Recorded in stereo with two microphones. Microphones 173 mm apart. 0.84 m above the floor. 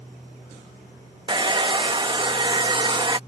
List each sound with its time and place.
1.3 s a hair dryer: 25° right (ahead or behind)